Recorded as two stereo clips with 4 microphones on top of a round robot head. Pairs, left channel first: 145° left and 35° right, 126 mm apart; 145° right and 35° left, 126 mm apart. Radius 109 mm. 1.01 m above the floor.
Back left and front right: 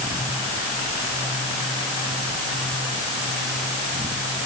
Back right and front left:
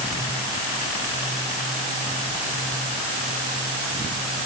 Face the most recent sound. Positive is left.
No sound to turn to.